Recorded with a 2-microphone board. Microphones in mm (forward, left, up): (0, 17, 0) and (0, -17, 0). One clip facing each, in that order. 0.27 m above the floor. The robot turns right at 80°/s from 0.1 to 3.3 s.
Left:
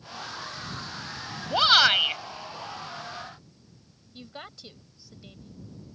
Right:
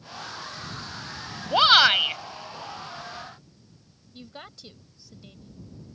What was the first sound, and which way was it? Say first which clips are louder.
A shout: right 2 dB; 35° right.